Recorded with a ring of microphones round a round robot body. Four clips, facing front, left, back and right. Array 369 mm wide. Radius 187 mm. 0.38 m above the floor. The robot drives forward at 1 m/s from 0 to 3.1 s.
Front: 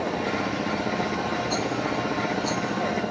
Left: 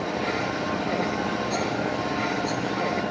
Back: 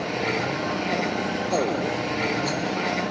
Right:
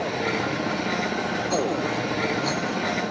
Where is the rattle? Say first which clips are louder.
Right 2 dB, back 2 dB; 40° right, 1.2 m; by 3.1 s 135° right, 1.0 m.